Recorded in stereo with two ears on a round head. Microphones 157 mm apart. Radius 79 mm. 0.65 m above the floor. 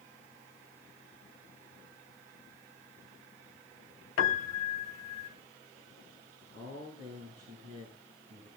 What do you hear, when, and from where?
4.2 s a piano: 85° left, 1.5 m
6.5 s a man speaking: 80° right, 9.5 m